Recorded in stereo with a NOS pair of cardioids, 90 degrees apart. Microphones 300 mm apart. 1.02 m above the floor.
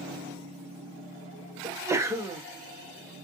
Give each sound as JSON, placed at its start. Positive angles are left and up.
{"t": 1.6, "sound": "a sneeze", "azimuth_deg": -10, "distance_m": 1.1}